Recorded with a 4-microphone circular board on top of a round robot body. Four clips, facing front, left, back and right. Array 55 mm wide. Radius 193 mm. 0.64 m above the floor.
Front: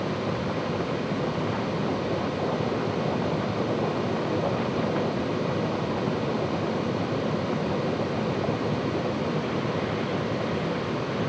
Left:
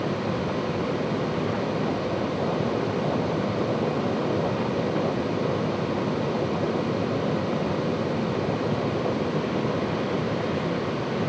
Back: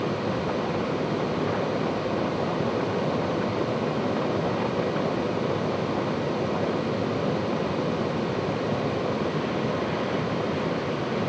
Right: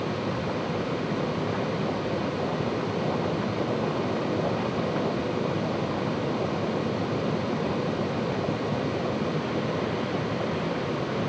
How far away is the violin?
No violin in this recording.